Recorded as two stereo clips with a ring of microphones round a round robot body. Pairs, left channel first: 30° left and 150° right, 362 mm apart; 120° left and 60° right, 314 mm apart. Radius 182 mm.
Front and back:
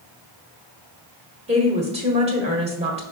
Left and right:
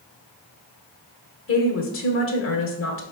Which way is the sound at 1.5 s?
145° left.